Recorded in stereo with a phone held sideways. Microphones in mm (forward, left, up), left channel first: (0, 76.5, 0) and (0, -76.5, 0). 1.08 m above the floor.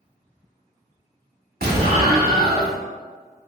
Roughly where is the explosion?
Right.